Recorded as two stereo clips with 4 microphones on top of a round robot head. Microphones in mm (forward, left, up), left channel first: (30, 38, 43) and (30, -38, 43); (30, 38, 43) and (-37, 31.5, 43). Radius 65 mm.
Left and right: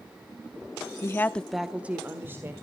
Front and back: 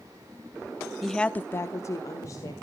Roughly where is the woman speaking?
Left.